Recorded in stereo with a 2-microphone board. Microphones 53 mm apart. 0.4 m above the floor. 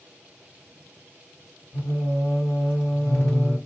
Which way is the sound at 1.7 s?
25° left (ahead or behind).